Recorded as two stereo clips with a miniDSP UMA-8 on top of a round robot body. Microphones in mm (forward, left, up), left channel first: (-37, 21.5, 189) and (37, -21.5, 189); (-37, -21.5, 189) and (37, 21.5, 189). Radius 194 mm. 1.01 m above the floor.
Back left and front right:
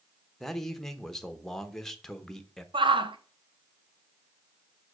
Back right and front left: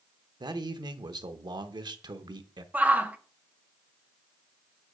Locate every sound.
0.4 s a man speaking: 65° left, 1.1 m
2.7 s a shout: 40° right, 1.3 m